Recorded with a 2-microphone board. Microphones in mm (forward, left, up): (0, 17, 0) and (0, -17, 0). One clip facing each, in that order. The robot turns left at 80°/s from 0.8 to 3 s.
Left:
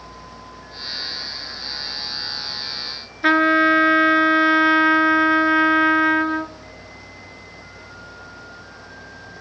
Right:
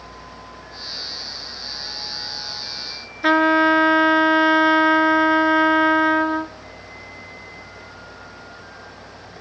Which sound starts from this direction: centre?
A trumpet, at 3.2 s.